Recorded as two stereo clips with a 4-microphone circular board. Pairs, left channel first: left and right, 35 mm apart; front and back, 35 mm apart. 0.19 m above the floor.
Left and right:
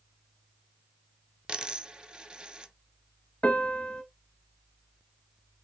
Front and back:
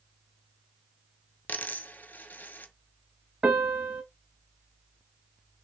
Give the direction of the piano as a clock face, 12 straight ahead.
7 o'clock.